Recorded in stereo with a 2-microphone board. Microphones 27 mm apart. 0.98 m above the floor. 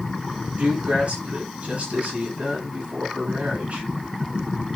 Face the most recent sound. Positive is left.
turn(degrees=-50)  # may be behind; listen again after turning